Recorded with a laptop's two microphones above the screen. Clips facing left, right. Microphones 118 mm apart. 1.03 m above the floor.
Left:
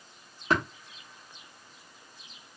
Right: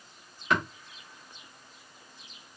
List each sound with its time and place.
0.5 s tapping: 35° left (ahead or behind), 0.9 m